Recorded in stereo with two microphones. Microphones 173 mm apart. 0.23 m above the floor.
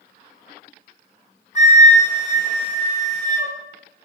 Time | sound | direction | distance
1.6 | a flute | 45° left (ahead or behind) | 3 m